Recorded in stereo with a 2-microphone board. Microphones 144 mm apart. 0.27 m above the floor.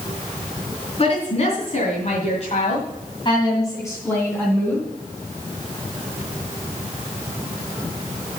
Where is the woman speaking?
45° left (ahead or behind), 3.5 m; by 4.9 s 5° left (ahead or behind), 3.5 m.